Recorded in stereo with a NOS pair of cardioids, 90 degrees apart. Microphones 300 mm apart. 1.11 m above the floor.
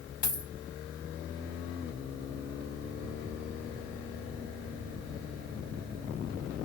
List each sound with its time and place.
0.2 s a dropped coin: 70° left, 1.6 m